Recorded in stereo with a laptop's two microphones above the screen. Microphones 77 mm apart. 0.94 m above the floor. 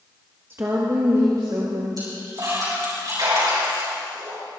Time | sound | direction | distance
0.5 | a woman speaking | 30° right (ahead or behind) | 1.1 m
2.0 | a splash | 55° right (ahead or behind) | 5.5 m